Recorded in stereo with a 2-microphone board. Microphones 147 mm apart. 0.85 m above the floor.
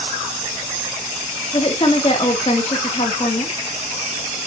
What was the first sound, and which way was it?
A woman speaking, 40° left (ahead or behind).